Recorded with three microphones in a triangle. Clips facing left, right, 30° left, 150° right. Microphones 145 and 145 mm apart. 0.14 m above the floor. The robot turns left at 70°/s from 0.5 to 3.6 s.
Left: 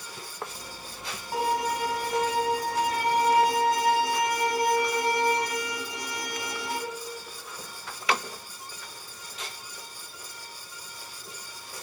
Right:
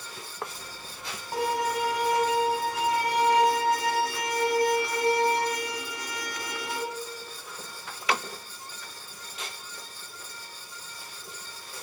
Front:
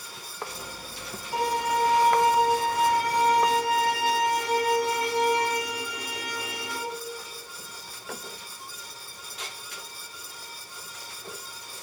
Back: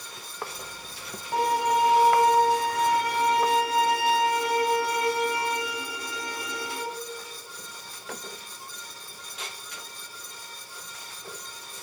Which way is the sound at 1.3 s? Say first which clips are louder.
Even, back 2 dB; straight behind.